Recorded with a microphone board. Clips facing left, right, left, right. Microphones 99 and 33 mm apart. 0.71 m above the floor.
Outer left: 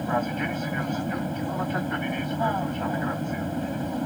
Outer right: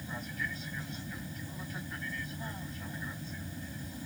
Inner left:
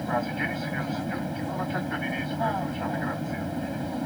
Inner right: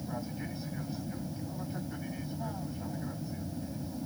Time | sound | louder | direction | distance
0.0 | an aircraft | outer left 14 dB, inner left 11 dB | 65° left (ahead or behind) | ?